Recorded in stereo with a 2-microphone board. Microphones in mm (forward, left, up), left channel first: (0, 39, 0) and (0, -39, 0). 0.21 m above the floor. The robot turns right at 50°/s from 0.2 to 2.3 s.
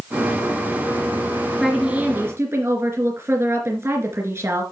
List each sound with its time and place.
1.6 s a woman speaking: straight behind, 3 m; by 4.6 s 145° right, 3 m